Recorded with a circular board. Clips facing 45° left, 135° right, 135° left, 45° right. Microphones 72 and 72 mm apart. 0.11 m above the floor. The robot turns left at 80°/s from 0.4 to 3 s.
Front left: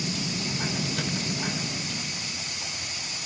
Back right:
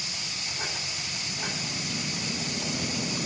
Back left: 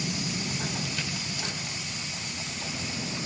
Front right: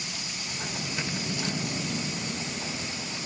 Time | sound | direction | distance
0.0 | a vehicle | 70° left | ?